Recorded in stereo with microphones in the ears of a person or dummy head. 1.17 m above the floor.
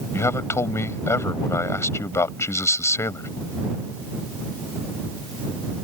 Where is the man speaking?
20° left (ahead or behind).